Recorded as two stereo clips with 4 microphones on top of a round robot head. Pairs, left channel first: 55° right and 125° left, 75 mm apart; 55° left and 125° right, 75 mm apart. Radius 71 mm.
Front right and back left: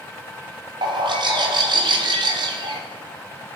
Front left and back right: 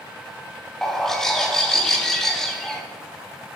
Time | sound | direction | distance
0.8 | a bird | 140° left | 2 m